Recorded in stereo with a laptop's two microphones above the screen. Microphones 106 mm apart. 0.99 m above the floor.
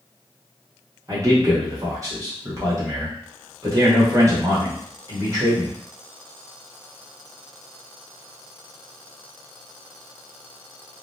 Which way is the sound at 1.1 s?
35° right (ahead or behind).